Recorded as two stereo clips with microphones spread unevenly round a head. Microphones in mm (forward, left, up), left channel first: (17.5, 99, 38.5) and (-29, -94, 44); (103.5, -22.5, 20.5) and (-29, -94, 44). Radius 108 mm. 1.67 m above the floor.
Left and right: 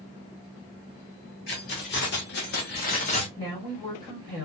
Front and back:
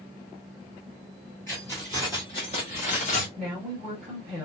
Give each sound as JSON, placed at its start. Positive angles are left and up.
{"t": 1.5, "sound": "keys jangling", "azimuth_deg": 110, "distance_m": 1.2}
{"t": 3.4, "sound": "a woman speaking", "azimuth_deg": 140, "distance_m": 1.3}